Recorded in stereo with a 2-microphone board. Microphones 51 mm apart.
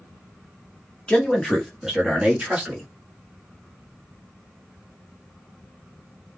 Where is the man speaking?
20° left (ahead or behind), 0.6 m; by 2.9 s 25° right (ahead or behind), 1.4 m.